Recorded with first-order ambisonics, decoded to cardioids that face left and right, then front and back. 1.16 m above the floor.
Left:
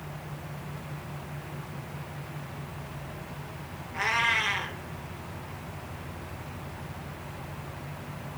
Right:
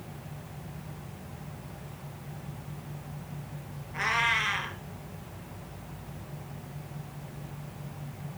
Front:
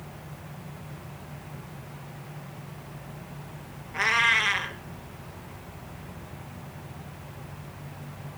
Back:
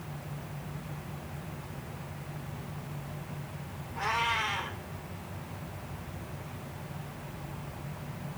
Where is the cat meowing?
5° right, 3.5 m.